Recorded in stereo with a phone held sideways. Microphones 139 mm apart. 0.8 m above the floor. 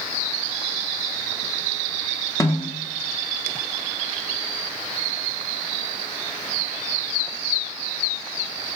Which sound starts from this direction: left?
A snare drum, at 2.4 s.